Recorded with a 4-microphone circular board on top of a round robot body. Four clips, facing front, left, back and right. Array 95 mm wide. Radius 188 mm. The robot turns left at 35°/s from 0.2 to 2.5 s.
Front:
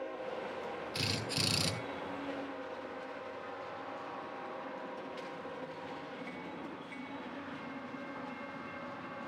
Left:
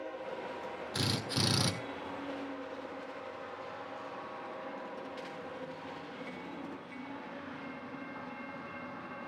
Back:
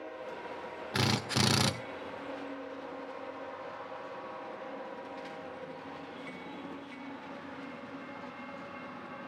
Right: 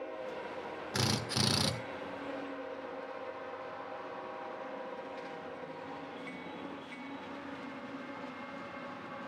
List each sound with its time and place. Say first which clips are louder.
0.9 s a drill: right 1 dB, back 10 dB; 160° right, 1.7 m; by 1.7 s 175° left, 1.7 m